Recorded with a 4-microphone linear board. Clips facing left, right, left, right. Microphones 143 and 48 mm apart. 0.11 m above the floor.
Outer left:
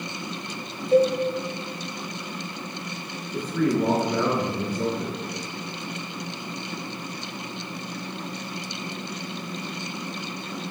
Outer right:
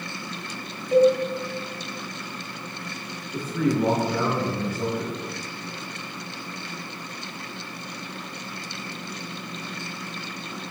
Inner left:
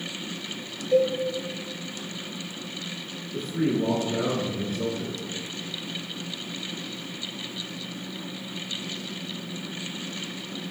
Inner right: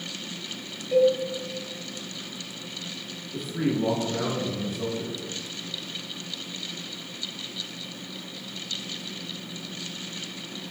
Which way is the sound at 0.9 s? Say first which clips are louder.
Outer right 2 dB, inner right 2 dB; 15° right (ahead or behind).